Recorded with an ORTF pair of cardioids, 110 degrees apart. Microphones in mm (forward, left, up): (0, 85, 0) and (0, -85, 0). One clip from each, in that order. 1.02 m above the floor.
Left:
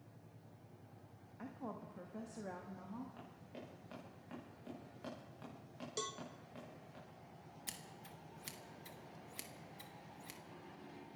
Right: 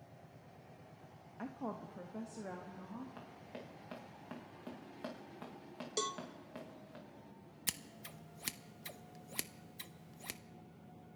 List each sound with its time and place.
1.4 s a woman speaking: 30° right, 1.2 m; by 3.1 s 5° left, 1.8 m
3.2 s running footsteps: 30° right, 7 m
6.0 s a cowbell: 25° right, 0.7 m
7.7 s scissors: 45° right, 0.7 m